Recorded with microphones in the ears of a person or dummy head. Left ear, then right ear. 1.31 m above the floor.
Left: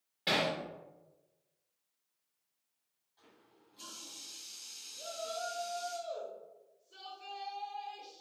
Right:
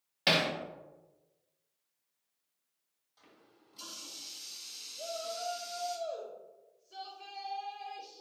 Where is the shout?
75° right (ahead or behind), 1.7 m.